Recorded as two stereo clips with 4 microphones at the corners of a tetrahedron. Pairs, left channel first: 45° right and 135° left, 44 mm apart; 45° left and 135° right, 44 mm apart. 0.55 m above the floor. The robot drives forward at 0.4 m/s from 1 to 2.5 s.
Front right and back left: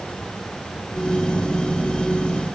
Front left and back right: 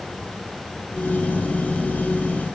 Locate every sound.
Only background noise.